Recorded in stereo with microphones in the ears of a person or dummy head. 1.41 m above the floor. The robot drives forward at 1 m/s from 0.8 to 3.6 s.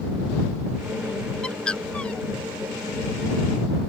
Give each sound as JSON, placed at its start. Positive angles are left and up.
{"t": 1.4, "sound": "a bird", "side_deg": 5}